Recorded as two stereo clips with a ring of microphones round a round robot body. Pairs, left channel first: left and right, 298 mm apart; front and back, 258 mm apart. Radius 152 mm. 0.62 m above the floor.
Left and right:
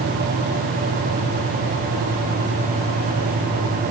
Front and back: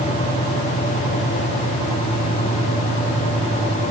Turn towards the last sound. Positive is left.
No sound to turn to.